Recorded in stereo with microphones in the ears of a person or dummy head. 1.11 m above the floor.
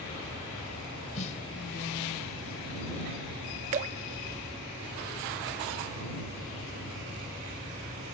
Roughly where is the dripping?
Right.